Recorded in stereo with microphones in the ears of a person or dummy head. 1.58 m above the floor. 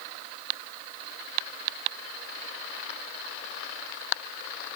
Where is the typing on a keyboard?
I don't hear typing on a keyboard.